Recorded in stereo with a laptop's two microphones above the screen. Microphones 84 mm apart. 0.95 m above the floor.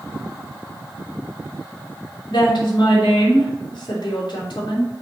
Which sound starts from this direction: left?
A woman speaking, at 2.3 s.